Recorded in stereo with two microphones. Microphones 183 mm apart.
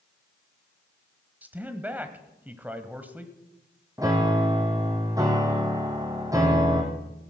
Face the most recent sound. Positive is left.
turn(degrees=-20)  # may be behind; listen again after turning